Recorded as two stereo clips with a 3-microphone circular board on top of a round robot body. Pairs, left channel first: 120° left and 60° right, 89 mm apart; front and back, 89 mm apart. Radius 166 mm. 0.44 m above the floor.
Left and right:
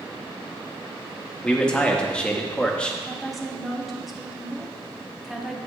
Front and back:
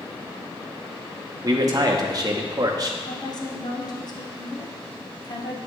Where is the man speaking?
165° right, 1.0 m.